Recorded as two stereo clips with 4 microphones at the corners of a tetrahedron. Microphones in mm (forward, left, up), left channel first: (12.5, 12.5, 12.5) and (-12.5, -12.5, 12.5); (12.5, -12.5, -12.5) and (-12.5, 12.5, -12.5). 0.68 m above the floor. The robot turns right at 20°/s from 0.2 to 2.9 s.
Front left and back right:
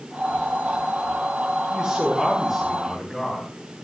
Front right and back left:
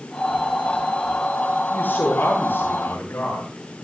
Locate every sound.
1.7 s a man speaking: 65° right, 9.5 m; by 3.5 s 45° right, 9.5 m